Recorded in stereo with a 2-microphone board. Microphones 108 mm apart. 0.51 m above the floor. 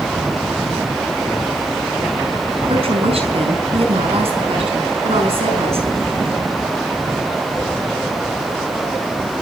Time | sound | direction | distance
2.7 | a woman speaking | 65° right (ahead or behind) | 5 m